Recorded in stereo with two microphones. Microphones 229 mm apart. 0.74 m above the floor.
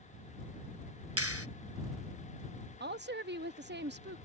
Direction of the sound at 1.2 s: 85° right.